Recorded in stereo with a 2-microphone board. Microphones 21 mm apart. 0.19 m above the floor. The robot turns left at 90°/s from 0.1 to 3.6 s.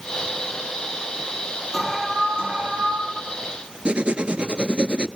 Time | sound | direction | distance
1.7 | an alarm | 5° right | 7 m
3.9 | writing | 60° right (ahead or behind) | 0.7 m